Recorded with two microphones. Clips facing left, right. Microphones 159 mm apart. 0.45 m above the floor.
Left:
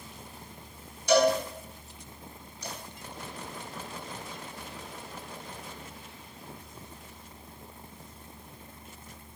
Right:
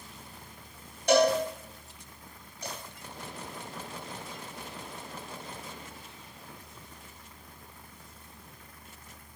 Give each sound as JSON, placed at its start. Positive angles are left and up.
{"t": 1.1, "sound": "a cowbell", "side_deg": -60, "distance_m": 4.0}